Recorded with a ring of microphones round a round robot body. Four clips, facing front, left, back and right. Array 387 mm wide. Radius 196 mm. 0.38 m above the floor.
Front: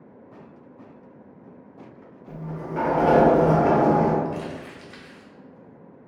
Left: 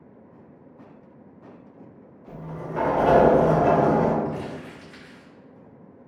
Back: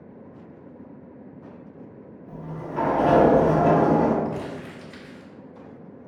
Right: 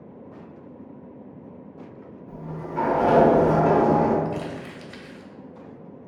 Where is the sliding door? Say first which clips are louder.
Left 1 dB, front 2 dB; 50° left, 0.7 m.